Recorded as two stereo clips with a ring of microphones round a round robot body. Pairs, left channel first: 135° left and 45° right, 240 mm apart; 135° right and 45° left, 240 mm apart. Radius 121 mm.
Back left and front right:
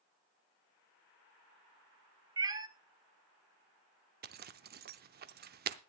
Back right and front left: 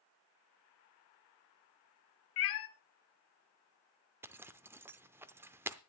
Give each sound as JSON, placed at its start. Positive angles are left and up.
{"t": 2.4, "sound": "a cat meowing", "azimuth_deg": -115, "distance_m": 0.7}
{"t": 4.2, "sound": "a zipper", "azimuth_deg": -30, "distance_m": 0.6}